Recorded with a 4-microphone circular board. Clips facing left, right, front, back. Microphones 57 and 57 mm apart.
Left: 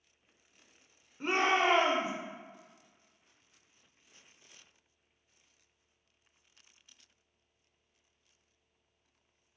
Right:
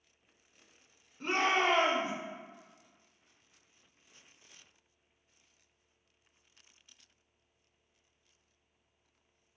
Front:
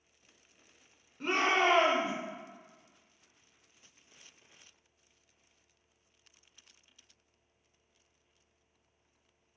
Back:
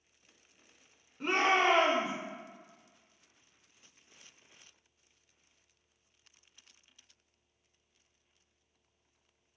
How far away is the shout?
About 0.9 m.